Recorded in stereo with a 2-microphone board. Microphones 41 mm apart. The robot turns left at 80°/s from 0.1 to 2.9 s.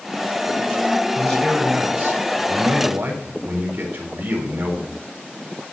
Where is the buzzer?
I don't hear a buzzer.